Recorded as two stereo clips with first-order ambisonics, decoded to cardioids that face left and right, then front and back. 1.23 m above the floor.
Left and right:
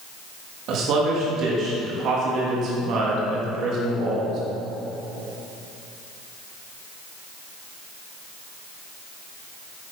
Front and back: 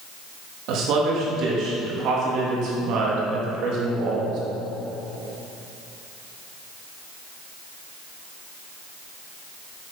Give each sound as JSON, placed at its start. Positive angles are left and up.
{"t": 0.7, "sound": "a man speaking", "azimuth_deg": -135, "distance_m": 2.5}